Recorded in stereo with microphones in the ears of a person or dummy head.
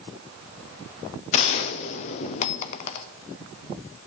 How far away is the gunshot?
About 0.5 m.